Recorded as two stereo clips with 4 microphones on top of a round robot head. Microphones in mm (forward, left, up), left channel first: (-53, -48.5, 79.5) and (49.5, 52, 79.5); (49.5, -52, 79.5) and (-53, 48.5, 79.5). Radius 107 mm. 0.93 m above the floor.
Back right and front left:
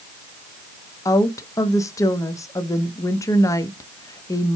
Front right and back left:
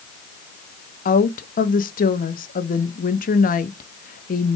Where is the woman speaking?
65° right, 1.2 m.